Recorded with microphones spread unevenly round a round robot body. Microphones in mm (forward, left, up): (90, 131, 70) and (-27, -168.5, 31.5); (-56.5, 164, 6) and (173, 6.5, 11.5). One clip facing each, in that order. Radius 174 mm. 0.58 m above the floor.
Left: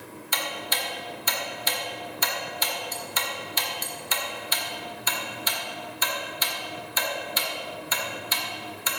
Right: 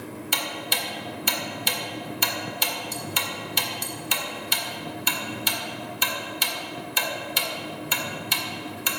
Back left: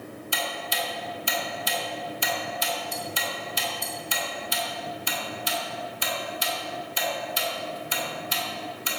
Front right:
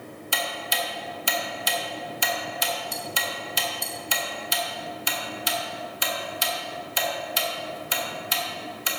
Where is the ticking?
65° right, 1.6 m.